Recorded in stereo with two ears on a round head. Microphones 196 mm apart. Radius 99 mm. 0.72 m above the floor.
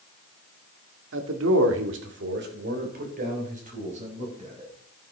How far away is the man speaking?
About 2.0 m.